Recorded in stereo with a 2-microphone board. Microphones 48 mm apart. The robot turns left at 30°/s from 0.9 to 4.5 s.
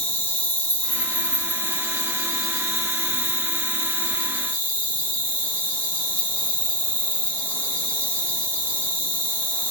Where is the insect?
150° left, 1.2 m; by 9.7 s 45° left, 1.2 m.